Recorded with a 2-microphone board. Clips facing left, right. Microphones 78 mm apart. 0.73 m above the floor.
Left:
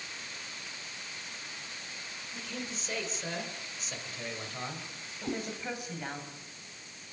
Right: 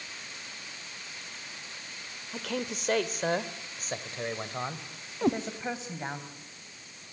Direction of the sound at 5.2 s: 70° right (ahead or behind).